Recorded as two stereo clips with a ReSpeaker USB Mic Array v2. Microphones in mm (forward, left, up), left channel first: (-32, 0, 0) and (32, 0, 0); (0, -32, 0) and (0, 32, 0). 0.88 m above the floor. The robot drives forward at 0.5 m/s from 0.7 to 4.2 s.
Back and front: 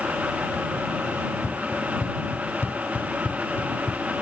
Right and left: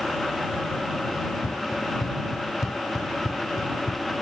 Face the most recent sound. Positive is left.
turn(degrees=-120)